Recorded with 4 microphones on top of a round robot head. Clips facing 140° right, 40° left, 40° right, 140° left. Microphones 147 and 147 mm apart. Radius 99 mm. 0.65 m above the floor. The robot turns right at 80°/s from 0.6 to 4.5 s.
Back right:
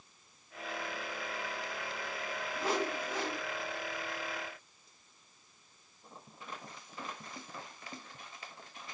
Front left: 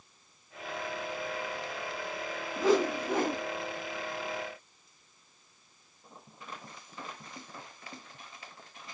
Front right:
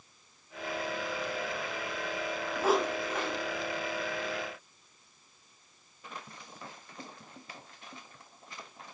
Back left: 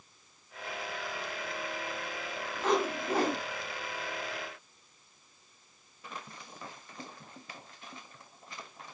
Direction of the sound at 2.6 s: 35° left.